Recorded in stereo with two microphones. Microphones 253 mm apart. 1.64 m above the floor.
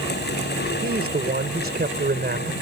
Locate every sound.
0.8 s a man speaking: 45° right (ahead or behind)